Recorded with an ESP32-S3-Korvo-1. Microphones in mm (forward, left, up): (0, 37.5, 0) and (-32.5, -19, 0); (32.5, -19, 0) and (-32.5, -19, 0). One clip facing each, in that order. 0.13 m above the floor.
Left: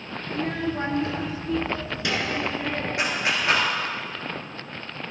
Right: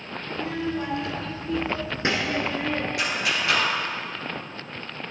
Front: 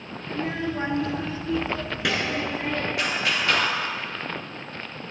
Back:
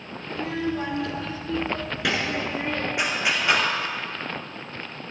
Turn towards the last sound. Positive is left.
turn(degrees=115)